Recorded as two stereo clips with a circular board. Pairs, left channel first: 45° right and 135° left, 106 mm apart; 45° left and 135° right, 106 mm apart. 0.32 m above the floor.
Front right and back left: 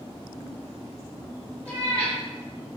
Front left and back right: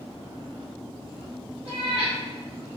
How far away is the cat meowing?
About 1.0 m.